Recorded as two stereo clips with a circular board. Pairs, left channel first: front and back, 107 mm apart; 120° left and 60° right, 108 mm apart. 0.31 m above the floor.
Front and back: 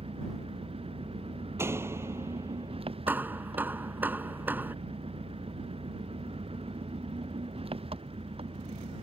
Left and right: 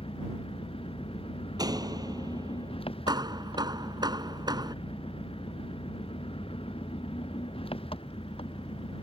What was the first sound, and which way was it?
An engine running, 155° left.